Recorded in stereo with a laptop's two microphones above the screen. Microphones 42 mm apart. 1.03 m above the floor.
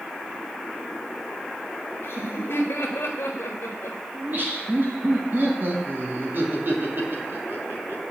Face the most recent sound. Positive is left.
turn(degrees=-50)  # may be behind; listen again after turning